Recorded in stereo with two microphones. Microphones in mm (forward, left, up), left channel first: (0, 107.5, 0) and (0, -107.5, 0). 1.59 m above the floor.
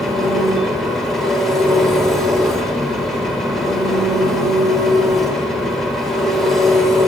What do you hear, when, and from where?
0.0 s an engine running: centre (ahead or behind), 4.5 m